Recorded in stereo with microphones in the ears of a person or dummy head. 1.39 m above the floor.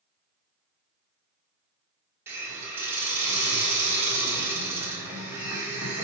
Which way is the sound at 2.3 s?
15° right (ahead or behind).